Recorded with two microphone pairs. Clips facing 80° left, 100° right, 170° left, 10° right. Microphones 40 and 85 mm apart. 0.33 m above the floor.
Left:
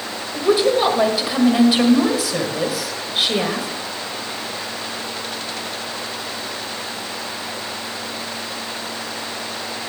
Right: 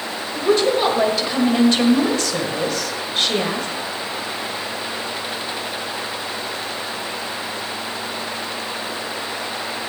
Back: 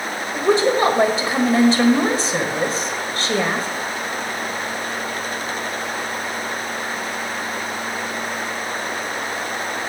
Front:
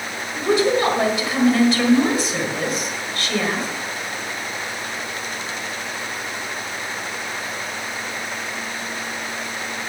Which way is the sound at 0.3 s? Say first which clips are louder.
Left 1 dB, back 1 dB; 150° left.